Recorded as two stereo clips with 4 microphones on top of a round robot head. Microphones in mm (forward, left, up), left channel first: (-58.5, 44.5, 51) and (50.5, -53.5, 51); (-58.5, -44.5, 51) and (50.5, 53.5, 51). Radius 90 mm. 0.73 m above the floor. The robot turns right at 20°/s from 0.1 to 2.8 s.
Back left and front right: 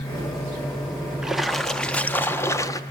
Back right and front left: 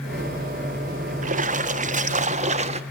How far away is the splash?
About 1.4 m.